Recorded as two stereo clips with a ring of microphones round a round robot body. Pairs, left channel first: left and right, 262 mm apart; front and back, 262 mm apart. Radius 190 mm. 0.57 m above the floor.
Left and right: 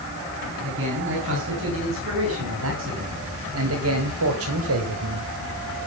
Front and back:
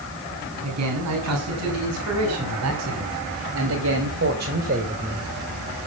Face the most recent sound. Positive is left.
turn(degrees=-105)